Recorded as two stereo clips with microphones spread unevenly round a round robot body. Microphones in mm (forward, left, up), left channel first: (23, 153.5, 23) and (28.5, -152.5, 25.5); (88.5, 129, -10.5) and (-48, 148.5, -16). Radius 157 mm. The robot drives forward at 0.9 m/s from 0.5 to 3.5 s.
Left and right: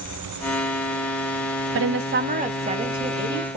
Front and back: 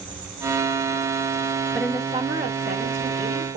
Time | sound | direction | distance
1.8 | a woman speaking | 100° right | 0.6 m